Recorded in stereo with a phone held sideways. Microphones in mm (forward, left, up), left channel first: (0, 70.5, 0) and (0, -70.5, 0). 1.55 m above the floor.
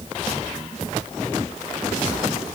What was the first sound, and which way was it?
Only background noise.